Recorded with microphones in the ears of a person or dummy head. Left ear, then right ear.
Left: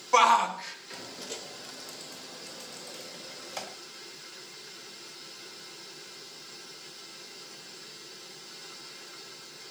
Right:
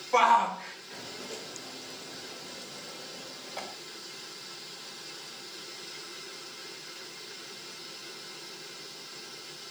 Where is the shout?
40° left (ahead or behind), 2 m; by 3.7 s 65° left (ahead or behind), 4.5 m.